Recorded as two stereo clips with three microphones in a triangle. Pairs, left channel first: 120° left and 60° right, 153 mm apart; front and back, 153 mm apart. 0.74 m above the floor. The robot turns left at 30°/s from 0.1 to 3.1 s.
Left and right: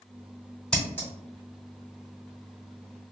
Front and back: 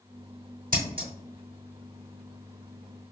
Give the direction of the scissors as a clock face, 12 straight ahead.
5 o'clock.